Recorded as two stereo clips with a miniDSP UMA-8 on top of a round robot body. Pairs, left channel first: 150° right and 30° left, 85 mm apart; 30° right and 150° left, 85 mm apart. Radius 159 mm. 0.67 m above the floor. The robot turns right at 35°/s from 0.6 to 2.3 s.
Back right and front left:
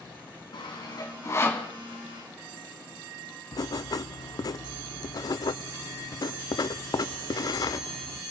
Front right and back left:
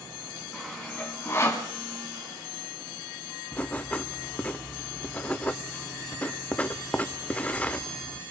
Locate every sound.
0.5 s sawing: 120° right, 3 m; by 1.7 s 80° right, 3 m
3.5 s writing: 105° right, 0.5 m